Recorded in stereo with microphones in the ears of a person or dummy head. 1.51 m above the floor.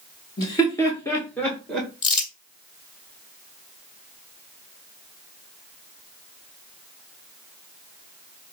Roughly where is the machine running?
I don't hear a machine running.